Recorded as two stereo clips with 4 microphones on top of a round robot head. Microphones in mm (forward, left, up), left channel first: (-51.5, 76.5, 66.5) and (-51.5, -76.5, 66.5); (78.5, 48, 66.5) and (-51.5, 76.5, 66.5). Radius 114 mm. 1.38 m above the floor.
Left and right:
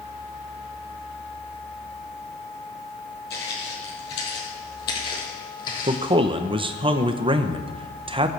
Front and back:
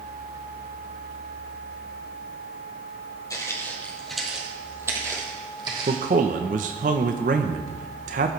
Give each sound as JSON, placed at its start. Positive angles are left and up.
{"t": 3.3, "sound": "footsteps", "azimuth_deg": 50, "distance_m": 3.0}
{"t": 5.9, "sound": "a man speaking", "azimuth_deg": -145, "distance_m": 0.9}